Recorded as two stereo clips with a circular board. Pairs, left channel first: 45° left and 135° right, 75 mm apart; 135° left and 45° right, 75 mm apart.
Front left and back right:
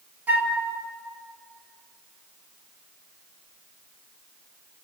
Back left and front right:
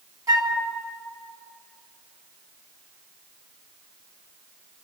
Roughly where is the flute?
Right.